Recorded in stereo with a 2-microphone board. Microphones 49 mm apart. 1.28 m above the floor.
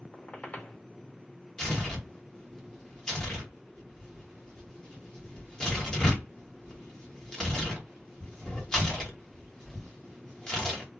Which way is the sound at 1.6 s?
10° left (ahead or behind).